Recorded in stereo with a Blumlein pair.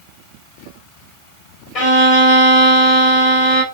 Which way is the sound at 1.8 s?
30° left.